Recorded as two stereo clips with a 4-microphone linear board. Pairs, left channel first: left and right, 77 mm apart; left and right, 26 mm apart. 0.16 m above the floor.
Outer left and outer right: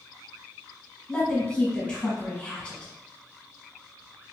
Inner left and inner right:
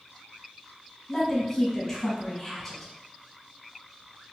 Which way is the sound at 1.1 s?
15° left (ahead or behind).